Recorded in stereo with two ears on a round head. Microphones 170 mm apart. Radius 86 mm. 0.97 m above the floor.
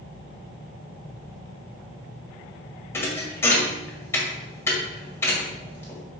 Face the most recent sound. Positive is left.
turn(degrees=15)  # may be behind; listen again after turning